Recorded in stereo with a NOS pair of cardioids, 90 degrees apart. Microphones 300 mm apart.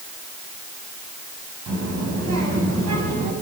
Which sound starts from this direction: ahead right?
A child speaking, at 1.7 s.